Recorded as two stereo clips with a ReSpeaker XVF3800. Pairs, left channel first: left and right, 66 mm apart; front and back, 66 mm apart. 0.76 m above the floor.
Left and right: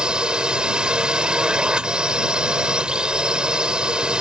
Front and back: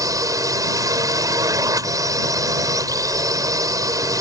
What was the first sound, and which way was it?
A drone, 165° right.